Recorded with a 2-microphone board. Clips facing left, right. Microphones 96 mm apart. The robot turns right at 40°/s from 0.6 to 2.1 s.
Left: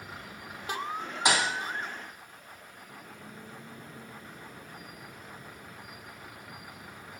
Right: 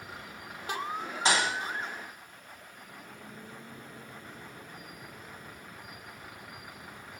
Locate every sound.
1.2 s a thud: 15° left (ahead or behind), 1.7 m; by 1.5 s 5° left (ahead or behind), 1.7 m